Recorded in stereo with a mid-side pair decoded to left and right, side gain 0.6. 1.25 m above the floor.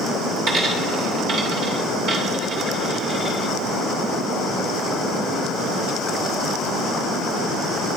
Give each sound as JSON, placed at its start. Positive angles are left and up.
{"t": 0.5, "sound": "a dropped coin", "azimuth_deg": -55, "distance_m": 2.0}